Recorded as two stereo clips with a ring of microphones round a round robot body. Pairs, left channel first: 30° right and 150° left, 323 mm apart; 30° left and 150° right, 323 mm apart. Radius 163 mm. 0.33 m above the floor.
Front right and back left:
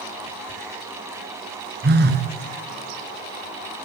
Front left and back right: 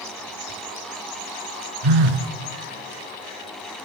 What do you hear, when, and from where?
1.8 s a phone buzzing: 150° right, 2 m